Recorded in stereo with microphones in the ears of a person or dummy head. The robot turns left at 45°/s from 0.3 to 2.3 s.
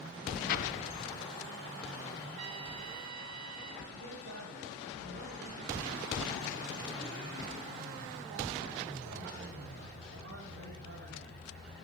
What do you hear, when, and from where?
0.5 s an explosion: 55° left, 0.9 m; by 1.3 s 20° left, 0.9 m
2.4 s a trumpet: 40° right (ahead or behind), 1.3 m
3.9 s a man speaking: 85° right, 9 m